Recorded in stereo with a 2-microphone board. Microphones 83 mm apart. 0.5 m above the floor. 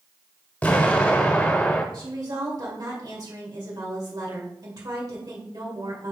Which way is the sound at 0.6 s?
20° left (ahead or behind).